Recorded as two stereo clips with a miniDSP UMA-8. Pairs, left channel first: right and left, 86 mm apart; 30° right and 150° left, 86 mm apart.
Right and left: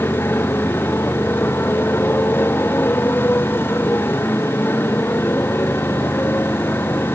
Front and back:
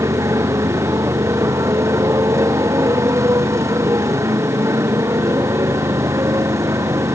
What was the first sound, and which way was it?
A motorcycle, 155° right.